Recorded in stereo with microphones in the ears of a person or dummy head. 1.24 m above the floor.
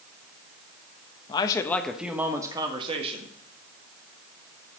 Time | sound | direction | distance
1.3 | a man speaking | 30° left (ahead or behind) | 0.9 m